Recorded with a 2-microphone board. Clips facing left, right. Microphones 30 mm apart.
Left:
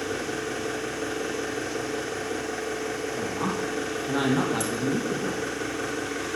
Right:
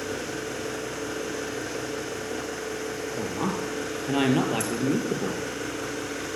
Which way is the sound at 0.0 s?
5° left (ahead or behind).